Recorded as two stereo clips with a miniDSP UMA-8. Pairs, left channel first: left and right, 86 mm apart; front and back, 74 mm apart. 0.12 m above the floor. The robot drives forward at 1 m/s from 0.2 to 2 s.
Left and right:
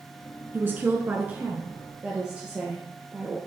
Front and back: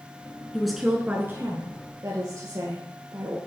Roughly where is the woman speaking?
Right.